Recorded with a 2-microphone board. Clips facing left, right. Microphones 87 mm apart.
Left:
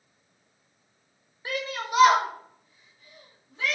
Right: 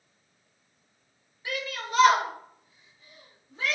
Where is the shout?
35° left (ahead or behind), 0.7 m; by 3.8 s 35° right (ahead or behind), 1.3 m.